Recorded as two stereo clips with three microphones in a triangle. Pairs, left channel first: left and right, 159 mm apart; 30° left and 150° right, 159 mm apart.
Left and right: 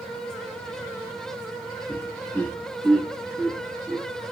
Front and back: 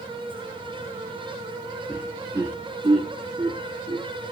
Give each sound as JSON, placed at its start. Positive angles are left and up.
{"t": 1.9, "sound": "laughter", "azimuth_deg": 140, "distance_m": 0.8}